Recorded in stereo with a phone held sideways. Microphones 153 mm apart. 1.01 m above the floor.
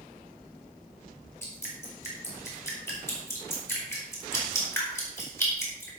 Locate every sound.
1.4 s dripping: 15° left (ahead or behind), 5 m